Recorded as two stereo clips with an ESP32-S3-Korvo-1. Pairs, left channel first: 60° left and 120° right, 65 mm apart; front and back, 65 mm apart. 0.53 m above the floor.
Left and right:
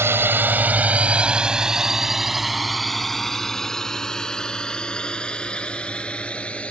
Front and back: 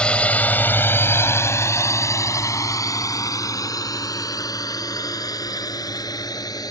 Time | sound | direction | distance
0.0 | a drone | 75° right | ?